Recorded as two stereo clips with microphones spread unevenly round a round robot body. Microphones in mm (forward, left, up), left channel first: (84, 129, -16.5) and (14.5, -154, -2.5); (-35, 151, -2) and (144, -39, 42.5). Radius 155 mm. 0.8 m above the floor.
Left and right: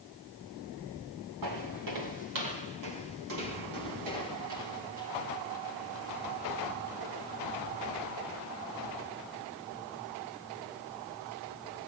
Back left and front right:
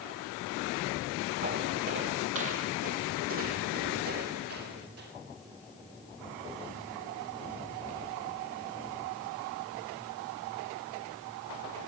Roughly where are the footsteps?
Right.